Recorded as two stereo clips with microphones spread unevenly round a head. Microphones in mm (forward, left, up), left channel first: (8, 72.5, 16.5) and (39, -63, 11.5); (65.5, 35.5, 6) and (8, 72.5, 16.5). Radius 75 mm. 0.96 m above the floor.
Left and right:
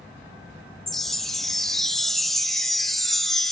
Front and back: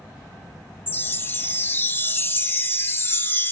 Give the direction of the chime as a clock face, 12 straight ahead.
12 o'clock.